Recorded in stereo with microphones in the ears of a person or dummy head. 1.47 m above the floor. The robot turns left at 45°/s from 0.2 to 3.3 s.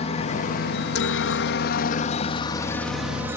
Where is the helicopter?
35° left (ahead or behind); by 3.4 s 10° right (ahead or behind).